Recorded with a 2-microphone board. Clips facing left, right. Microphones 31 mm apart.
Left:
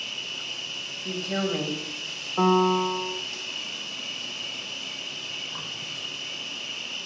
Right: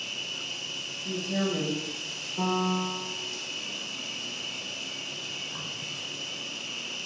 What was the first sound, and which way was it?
An insect, 15° left (ahead or behind).